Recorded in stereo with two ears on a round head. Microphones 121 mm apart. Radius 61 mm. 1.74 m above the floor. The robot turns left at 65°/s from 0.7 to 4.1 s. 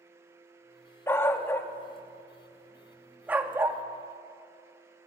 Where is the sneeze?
No sneeze in this recording.